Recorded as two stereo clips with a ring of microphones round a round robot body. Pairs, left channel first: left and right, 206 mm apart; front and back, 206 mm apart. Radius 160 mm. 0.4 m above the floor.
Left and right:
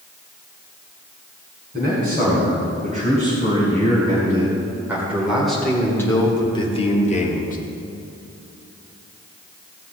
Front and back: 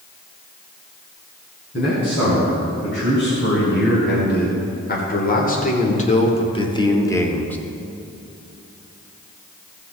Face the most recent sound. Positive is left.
turn(degrees=80)